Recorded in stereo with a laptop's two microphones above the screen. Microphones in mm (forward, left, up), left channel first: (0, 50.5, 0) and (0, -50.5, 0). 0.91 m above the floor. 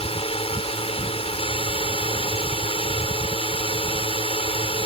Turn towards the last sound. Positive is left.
turn(degrees=70)  # may be behind; listen again after turning